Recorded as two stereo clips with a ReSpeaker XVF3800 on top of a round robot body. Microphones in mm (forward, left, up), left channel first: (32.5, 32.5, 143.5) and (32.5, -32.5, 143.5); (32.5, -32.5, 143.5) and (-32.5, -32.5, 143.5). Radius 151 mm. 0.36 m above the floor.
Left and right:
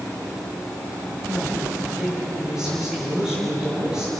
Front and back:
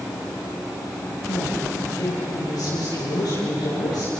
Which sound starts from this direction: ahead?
A woman speaking, at 1.3 s.